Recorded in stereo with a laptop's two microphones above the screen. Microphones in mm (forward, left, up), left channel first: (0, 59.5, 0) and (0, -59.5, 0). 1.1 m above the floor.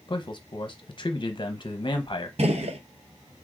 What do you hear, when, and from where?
0.1 s a man speaking: 40° left (ahead or behind), 0.7 m
2.4 s a gunshot: 60° right (ahead or behind), 0.8 m